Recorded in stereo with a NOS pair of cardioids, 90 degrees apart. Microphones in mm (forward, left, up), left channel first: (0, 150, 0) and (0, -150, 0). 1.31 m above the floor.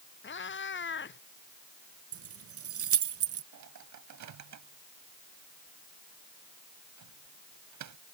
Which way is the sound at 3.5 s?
70° right.